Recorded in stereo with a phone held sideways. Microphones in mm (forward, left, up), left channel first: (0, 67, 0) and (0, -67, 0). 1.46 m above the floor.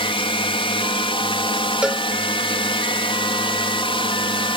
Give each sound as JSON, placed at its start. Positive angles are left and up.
{"t": 0.0, "sound": "a drone", "side_deg": 45}
{"t": 1.8, "sound": "a cowbell", "side_deg": -10}